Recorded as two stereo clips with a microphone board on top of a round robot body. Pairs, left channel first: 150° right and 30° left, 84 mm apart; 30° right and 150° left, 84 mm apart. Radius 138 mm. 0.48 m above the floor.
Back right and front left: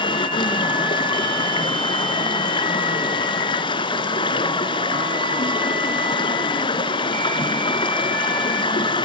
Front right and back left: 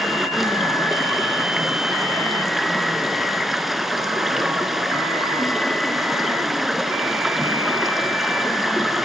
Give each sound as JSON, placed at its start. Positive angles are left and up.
{"t": 0.0, "sound": "running water", "azimuth_deg": -120, "distance_m": 1.5}